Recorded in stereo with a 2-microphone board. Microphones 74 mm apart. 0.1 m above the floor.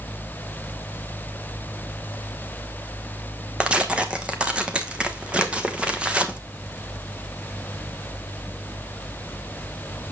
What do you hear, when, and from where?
3.6 s tearing paper: 15° right (ahead or behind), 1.1 m